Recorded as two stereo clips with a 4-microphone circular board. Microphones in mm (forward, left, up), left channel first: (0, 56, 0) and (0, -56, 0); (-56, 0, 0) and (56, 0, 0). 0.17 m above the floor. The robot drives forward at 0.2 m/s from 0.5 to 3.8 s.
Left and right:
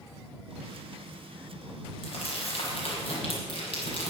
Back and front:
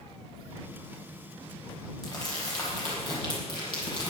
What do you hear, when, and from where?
2.0 s crumpling: 125° left, 5.5 m; by 4.1 s 130° left, 6 m